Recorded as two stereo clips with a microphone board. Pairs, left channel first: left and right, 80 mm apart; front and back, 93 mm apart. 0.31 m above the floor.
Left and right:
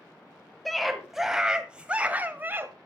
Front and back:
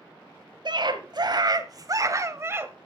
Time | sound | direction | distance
0.7 | a scream | straight behind | 1.8 m